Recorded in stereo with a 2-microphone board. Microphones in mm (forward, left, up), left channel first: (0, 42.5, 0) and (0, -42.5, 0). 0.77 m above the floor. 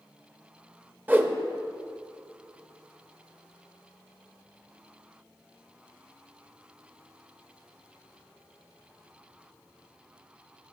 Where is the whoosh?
20° right (ahead or behind), 0.6 m.